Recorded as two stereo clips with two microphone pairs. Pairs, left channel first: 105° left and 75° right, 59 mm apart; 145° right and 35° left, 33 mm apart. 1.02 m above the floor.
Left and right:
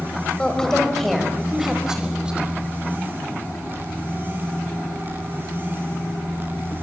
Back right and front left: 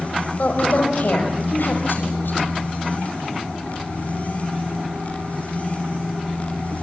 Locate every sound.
0.4 s a woman speaking: 175° left, 4.5 m; by 2.5 s 150° right, 5.5 m